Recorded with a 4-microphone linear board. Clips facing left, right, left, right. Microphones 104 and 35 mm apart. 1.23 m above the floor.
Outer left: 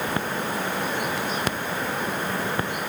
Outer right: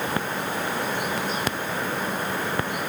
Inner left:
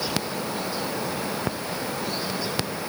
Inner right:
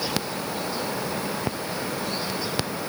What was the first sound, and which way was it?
Only background noise.